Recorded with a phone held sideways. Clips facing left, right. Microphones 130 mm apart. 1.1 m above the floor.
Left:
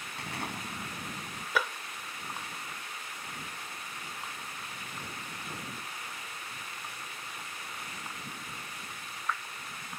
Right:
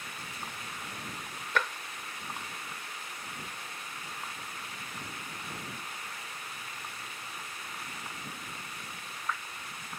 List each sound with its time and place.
0.2 s an explosion: 70° left (ahead or behind)
1.6 s tapping: 10° left (ahead or behind)